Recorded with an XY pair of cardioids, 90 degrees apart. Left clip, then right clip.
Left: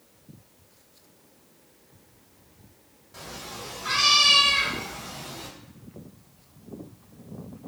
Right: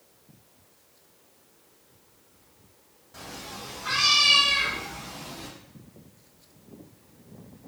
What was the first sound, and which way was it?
A cat meowing, 10° left.